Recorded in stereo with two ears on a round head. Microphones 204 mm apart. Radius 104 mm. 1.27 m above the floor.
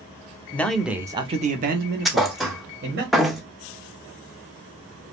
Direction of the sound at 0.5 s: 10° left (ahead or behind).